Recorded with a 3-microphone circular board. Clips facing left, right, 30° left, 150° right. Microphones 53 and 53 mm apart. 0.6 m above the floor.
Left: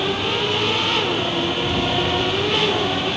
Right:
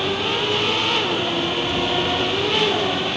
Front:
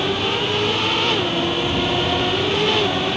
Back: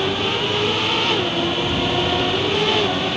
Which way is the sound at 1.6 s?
145° left.